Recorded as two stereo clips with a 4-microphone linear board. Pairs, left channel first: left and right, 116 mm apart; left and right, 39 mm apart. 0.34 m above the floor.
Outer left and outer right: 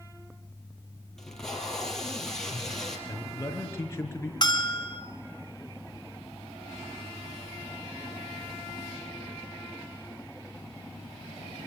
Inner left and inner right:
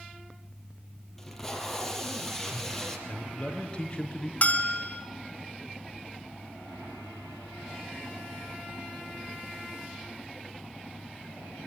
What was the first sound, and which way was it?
Tape being pulled, 5° left (ahead or behind).